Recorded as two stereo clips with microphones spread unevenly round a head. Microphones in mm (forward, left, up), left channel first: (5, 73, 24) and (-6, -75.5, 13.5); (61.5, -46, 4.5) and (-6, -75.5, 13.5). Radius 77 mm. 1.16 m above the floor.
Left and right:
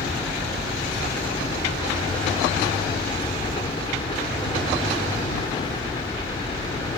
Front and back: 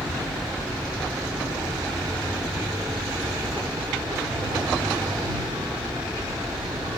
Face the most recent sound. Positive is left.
turn(degrees=150)